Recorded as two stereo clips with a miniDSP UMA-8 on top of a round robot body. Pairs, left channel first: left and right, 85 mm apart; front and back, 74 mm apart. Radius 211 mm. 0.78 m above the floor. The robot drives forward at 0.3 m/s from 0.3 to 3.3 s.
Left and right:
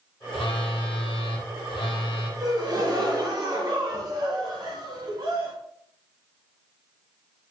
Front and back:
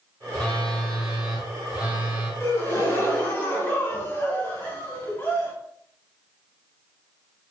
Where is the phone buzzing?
70° left, 0.9 m; by 2.3 s 110° left, 0.9 m.